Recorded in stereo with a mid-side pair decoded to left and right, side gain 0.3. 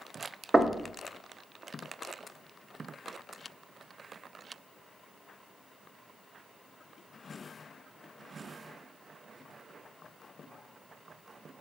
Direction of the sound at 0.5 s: 25° right.